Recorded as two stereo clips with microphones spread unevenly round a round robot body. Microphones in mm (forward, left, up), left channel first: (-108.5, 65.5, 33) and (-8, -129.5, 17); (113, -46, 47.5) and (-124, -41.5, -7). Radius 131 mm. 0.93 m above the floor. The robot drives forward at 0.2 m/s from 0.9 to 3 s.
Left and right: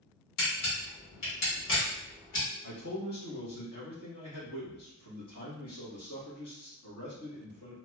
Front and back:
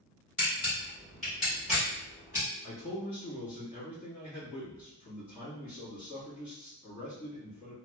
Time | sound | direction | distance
0.4 | a camera shutter | 85° left | 1.5 m
2.6 | a man speaking | 95° left | 1.4 m